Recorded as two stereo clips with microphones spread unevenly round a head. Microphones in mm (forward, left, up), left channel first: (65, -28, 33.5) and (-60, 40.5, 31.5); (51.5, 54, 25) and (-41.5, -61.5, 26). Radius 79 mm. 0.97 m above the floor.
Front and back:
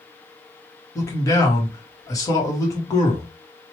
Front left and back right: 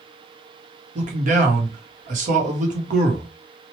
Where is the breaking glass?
I don't hear breaking glass.